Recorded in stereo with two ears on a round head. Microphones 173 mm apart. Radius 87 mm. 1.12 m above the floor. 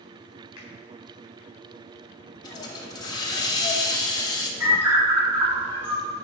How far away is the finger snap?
About 3 m.